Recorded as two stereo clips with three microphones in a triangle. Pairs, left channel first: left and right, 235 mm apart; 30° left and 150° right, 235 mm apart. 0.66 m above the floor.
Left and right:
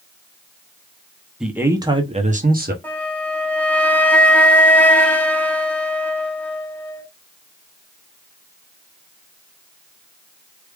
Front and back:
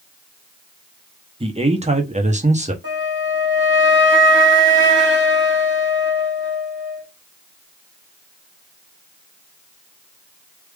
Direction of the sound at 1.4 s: 175° right.